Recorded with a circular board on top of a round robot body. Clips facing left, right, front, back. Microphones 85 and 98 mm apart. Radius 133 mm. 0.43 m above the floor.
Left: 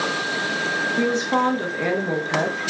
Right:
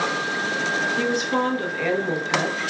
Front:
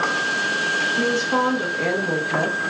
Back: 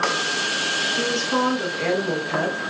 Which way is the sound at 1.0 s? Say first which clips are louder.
Left 5 dB, front 1 dB; 65° left.